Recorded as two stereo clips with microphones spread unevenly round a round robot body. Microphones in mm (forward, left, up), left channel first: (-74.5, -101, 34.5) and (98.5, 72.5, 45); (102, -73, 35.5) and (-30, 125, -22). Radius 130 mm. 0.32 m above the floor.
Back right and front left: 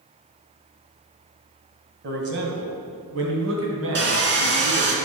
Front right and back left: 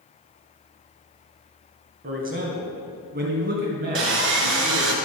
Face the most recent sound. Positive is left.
turn(degrees=90)